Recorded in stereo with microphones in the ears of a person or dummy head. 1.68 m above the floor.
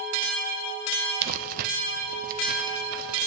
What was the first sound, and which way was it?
Crumpling, 50° right (ahead or behind).